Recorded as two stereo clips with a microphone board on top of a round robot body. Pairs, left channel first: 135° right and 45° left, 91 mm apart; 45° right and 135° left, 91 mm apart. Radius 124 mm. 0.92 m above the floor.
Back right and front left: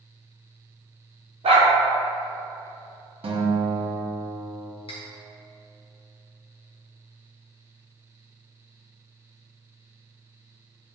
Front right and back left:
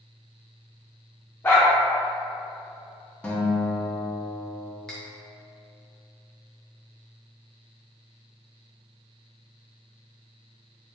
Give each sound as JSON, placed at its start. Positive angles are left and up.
{"t": 1.4, "sound": "a dog barking", "azimuth_deg": 25, "distance_m": 0.9}
{"t": 3.2, "sound": "a guitar", "azimuth_deg": 35, "distance_m": 1.0}
{"t": 4.9, "sound": "cutlery clinking", "azimuth_deg": -130, "distance_m": 0.9}